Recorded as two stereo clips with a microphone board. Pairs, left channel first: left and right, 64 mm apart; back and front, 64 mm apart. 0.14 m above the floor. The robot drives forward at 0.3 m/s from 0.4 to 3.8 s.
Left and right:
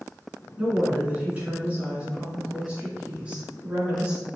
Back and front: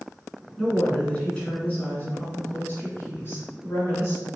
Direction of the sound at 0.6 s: 120° right.